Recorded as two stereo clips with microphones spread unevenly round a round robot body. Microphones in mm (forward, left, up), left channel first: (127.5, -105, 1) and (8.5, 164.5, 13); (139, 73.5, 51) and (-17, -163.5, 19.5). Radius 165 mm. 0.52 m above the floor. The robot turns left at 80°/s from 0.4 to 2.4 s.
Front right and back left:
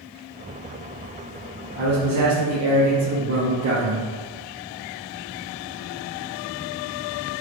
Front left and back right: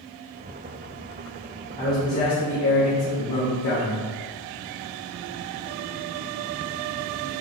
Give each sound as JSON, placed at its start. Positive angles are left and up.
{"t": 1.8, "sound": "a man speaking", "azimuth_deg": 130, "distance_m": 1.3}